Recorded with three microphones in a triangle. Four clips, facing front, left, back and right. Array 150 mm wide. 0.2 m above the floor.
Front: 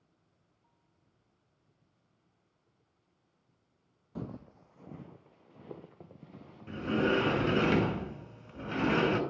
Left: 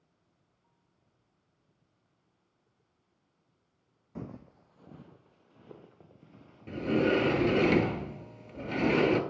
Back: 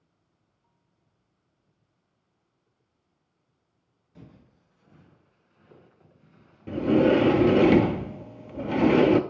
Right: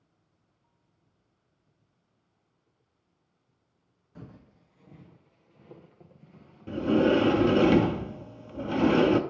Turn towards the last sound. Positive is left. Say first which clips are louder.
# right 4 dB, back 10 dB
turn(degrees=-170)